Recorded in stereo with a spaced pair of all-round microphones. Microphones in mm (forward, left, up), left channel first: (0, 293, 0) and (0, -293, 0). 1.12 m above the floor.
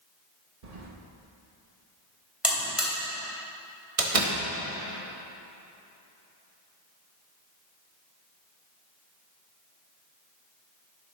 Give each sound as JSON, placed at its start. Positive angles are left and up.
{"t": 0.6, "sound": "keys jangling", "side_deg": -80, "distance_m": 1.1}
{"t": 2.4, "sound": "a buzzer", "side_deg": 0, "distance_m": 2.5}
{"t": 4.0, "sound": "a door slam", "side_deg": -65, "distance_m": 1.1}